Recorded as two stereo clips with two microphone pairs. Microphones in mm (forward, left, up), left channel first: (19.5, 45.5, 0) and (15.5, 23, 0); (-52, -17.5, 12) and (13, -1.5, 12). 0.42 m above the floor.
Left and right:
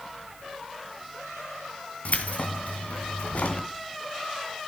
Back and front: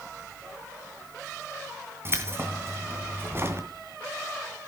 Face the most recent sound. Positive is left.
turn(degrees=70)